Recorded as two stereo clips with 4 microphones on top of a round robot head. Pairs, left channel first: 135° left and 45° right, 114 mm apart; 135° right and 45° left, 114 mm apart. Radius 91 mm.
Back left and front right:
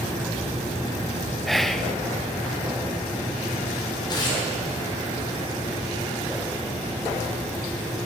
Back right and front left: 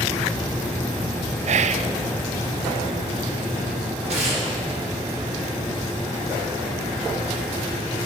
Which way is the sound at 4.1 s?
80° left.